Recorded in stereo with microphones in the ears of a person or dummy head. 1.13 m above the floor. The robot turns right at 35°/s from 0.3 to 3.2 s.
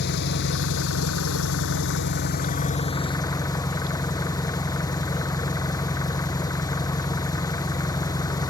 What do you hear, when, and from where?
0.0 s an engine running: 60° left; by 8.5 s 160° left